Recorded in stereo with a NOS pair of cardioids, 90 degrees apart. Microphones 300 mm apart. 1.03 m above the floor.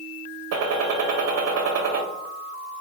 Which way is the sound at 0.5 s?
55° right.